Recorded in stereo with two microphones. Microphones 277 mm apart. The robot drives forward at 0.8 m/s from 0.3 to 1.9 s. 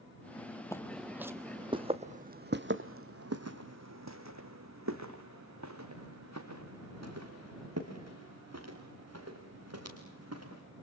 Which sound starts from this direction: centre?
Footsteps, at 0.7 s.